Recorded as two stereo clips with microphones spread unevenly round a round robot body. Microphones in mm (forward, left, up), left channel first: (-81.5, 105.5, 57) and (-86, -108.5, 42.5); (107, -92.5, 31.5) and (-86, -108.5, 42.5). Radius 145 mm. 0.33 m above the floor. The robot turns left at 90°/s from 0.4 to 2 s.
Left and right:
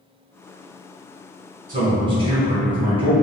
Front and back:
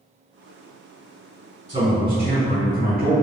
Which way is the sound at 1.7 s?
115° right.